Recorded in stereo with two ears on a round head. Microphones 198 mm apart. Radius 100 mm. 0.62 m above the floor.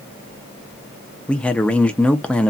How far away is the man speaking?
About 0.6 m.